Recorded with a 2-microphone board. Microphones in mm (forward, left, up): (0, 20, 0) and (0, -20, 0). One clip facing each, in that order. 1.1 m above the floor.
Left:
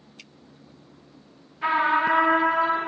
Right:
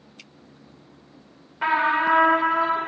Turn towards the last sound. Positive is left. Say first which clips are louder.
# right 1 dB
turn(degrees=-75)  # may be behind; listen again after turning